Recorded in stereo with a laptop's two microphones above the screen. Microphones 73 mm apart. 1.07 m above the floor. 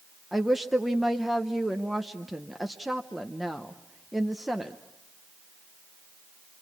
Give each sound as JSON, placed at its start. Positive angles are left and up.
{"t": 0.3, "sound": "a woman speaking", "side_deg": 0, "distance_m": 0.7}